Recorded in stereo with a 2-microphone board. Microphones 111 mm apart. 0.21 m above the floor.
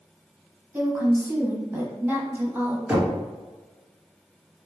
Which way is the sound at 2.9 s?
5° right (ahead or behind).